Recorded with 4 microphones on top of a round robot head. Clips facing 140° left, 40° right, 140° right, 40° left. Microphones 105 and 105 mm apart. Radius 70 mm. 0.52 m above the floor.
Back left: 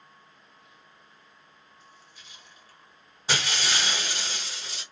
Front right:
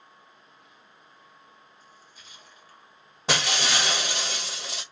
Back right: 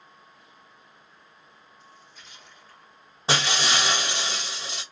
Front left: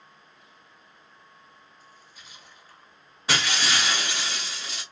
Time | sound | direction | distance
1.8 | a splash | 35° right | 1.6 m
3.3 | breaking glass | 75° right | 1.1 m